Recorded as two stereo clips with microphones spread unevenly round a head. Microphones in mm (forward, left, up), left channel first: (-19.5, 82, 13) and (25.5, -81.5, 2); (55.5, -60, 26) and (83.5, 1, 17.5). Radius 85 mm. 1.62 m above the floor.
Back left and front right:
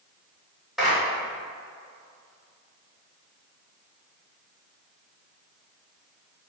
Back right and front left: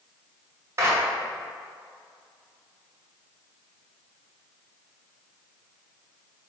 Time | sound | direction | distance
0.8 | a clap | 15° left | 3 m